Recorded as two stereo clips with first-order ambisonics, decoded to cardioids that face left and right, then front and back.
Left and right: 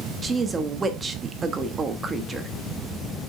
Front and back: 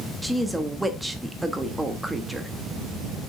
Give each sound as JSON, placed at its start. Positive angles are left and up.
{"t": 0.2, "sound": "a woman speaking", "azimuth_deg": -110, "distance_m": 0.8}